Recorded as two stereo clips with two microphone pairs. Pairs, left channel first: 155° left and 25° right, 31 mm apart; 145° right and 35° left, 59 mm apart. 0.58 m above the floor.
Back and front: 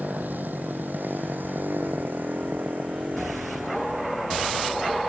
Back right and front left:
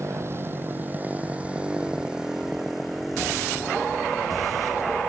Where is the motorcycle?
5° right; by 5.1 s 60° right.